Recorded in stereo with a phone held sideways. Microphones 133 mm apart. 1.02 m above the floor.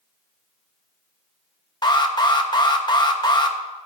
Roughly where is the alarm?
Left.